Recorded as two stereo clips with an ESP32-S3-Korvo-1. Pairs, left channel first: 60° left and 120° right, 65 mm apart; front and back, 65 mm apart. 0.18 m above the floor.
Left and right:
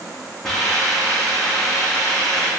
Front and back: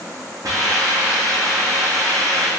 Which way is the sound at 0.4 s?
145° left.